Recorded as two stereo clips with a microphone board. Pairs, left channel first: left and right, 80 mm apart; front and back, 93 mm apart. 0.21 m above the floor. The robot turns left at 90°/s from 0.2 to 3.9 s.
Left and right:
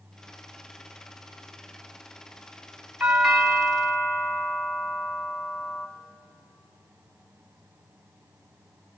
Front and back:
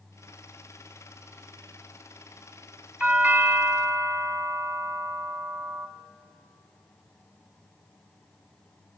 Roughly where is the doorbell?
Behind right.